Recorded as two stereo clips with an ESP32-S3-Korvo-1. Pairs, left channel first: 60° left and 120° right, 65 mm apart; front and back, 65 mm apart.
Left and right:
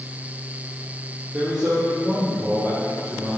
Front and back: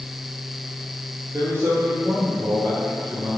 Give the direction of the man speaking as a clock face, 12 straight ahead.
6 o'clock.